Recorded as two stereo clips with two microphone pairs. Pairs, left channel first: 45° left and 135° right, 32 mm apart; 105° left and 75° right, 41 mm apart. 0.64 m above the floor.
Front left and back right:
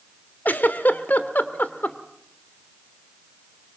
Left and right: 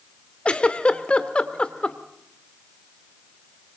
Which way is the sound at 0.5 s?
45° left.